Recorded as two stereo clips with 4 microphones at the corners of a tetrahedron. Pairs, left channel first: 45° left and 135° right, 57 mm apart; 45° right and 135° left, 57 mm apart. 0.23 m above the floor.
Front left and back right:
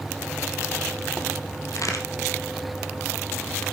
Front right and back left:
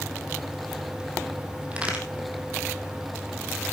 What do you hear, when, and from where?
1.7 s a crack: 65° left, 2.5 m